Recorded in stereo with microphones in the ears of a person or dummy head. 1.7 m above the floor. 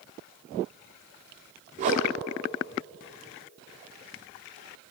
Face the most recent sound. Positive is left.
turn(degrees=-35)  # may be behind; listen again after turning